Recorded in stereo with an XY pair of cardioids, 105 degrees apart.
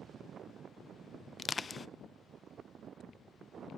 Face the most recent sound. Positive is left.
turn(degrees=35)